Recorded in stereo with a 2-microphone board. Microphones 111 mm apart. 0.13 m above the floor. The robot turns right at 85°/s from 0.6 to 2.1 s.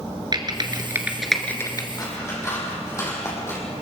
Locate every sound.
0.3 s typing on a keyboard: 40° right (ahead or behind), 2 m; by 1.9 s 35° left (ahead or behind), 2 m
2.0 s scissors: 35° left (ahead or behind), 5 m; by 3.6 s 25° left (ahead or behind), 5 m